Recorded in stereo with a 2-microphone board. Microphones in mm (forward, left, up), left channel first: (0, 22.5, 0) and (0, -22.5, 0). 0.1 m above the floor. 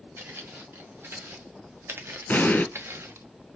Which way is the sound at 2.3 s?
45° left (ahead or behind).